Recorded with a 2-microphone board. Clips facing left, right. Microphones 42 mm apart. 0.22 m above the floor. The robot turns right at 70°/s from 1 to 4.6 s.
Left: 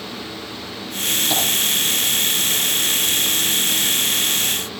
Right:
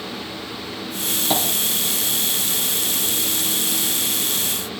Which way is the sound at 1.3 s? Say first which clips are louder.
Right 2 dB; 40° right (ahead or behind).